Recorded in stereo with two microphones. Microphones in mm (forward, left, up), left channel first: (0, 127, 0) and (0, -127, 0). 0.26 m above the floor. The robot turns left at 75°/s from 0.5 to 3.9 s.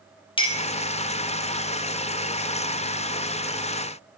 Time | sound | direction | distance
0.4 | a clink | 20° left (ahead or behind) | 0.5 m